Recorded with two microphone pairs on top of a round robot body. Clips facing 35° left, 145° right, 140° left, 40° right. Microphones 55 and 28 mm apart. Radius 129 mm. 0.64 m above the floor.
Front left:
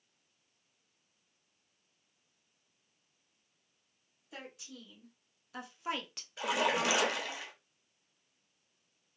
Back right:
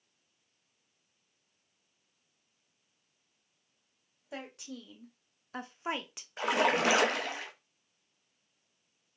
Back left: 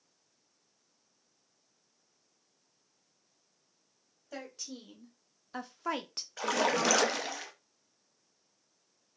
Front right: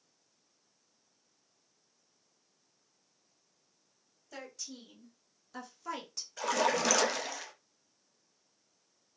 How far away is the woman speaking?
About 1.2 m.